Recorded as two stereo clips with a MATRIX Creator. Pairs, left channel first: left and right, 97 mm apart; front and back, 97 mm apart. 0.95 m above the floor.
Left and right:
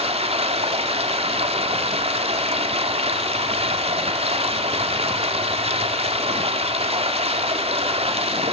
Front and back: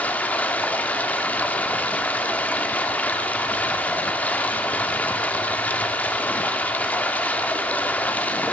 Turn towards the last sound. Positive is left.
turn(degrees=-75)